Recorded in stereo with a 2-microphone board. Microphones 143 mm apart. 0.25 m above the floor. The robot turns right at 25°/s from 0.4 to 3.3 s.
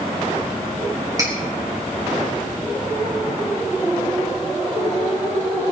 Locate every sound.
1.2 s cutlery clinking: 25° right (ahead or behind), 3.5 m; by 1.3 s 20° right (ahead or behind), 3.5 m